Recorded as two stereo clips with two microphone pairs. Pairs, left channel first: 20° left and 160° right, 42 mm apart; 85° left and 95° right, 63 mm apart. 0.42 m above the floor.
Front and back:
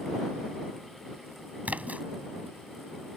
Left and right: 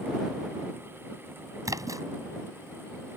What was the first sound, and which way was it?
A splash, 110° right.